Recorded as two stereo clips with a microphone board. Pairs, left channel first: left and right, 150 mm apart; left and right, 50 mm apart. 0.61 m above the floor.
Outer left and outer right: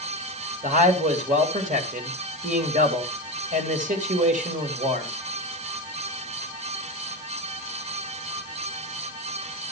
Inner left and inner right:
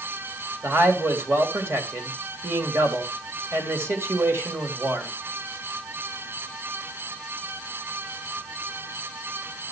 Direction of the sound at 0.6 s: 60° right (ahead or behind).